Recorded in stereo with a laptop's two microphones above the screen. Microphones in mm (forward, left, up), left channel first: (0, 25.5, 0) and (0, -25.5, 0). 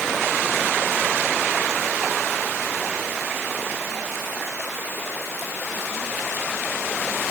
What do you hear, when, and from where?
Only background noise.